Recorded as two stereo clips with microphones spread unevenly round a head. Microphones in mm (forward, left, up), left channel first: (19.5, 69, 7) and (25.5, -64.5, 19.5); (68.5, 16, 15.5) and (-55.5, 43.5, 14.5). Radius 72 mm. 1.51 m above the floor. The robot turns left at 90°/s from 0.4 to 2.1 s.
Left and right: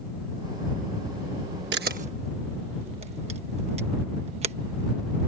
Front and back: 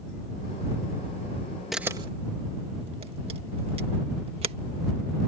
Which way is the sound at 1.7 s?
105° right.